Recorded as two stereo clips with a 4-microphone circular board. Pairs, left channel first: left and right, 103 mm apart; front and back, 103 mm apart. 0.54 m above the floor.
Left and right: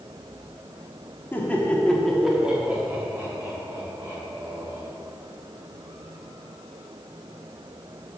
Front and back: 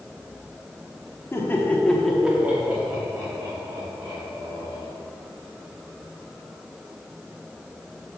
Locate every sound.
1.3 s laughter: 40° left, 1.2 m; by 4.9 s 145° right, 2.5 m